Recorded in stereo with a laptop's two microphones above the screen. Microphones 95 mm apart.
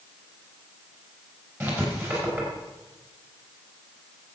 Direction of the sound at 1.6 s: 25° right (ahead or behind).